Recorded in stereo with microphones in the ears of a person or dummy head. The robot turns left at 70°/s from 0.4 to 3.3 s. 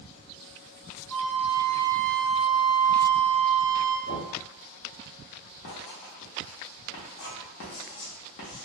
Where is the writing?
55° left (ahead or behind), 0.8 m.